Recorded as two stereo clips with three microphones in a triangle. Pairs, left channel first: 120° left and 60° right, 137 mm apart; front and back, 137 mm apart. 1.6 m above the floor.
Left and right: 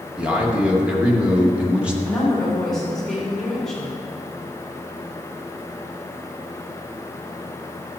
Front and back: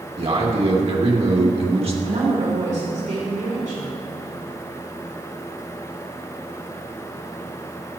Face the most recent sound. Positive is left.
turn(degrees=-155)